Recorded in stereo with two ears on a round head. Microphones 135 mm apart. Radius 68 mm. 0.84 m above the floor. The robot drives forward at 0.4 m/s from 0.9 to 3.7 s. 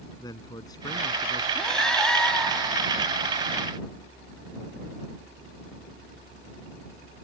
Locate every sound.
0.2 s a man speaking: 25° left (ahead or behind)
1.6 s breathing: 5° left (ahead or behind)